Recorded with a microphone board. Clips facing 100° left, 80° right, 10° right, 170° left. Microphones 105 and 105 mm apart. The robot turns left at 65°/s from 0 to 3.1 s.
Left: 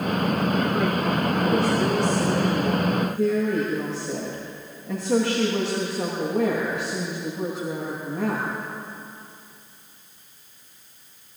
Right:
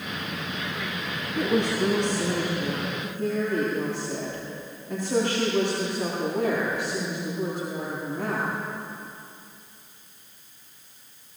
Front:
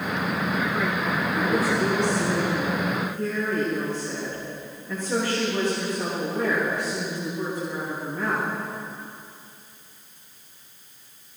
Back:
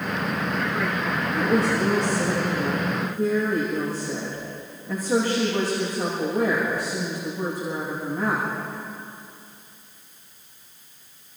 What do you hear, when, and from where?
1.4 s a woman speaking: 155° right, 10 m; by 8.5 s 90° left, 10 m